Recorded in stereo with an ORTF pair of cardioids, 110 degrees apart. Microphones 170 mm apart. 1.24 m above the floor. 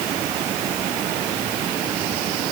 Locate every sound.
Only background noise.